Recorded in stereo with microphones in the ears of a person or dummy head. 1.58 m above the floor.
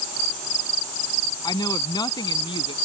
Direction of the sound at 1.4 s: 25° left (ahead or behind).